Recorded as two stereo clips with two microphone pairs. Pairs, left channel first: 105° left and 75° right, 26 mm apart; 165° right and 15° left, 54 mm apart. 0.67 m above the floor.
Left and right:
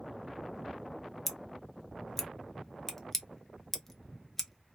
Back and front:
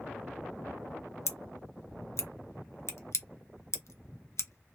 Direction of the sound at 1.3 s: Straight behind.